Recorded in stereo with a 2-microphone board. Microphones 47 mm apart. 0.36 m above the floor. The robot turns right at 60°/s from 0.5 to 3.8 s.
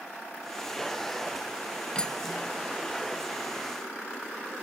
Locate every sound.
1.9 s cutlery clinking: 20° left (ahead or behind), 0.5 m; by 2.7 s 5° left (ahead or behind), 0.5 m